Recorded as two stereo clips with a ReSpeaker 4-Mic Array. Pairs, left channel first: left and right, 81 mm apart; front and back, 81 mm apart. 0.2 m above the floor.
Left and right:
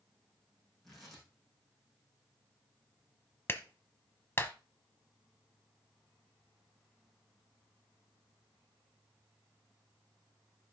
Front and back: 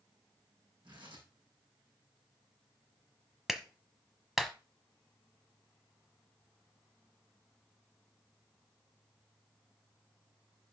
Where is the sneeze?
No sneeze in this recording.